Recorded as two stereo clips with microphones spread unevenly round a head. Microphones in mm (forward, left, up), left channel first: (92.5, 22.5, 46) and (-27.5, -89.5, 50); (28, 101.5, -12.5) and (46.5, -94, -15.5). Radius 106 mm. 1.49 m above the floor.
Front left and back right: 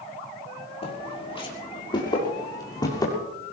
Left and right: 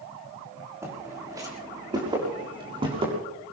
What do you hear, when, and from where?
0.8 s footsteps: 10° right, 6.5 m; by 3.1 s 25° right, 7 m